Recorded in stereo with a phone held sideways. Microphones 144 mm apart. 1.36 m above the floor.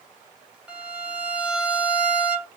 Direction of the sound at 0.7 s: 5° right (ahead or behind).